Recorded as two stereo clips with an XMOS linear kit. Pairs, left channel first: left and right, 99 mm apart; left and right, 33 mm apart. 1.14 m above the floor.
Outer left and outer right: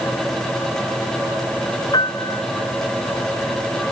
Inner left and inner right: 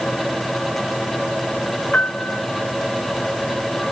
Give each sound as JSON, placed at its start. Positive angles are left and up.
{"t": 1.9, "sound": "a piano", "side_deg": 50}